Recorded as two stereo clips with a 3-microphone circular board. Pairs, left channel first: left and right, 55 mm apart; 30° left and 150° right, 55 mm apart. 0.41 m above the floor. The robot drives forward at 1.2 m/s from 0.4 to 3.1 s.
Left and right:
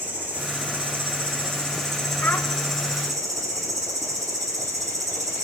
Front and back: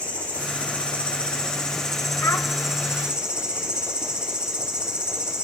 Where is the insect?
35° right, 4.5 m; by 5.5 s 75° right, 3 m.